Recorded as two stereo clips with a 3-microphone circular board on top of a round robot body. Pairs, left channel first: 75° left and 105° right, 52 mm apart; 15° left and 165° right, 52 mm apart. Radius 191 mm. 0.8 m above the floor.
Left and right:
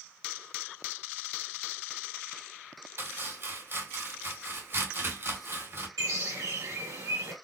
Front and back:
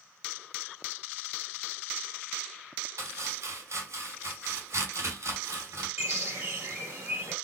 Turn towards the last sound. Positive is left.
turn(degrees=-115)